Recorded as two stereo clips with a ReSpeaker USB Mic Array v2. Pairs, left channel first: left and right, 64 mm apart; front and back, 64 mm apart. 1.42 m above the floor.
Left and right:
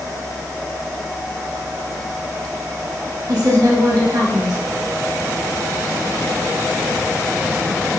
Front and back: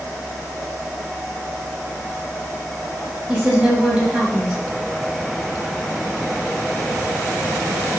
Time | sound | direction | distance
3.3 | a woman speaking | 115° right | 1.0 m